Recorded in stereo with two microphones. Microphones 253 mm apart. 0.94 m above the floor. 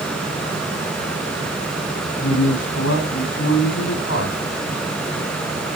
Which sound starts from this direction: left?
A man speaking, at 2.2 s.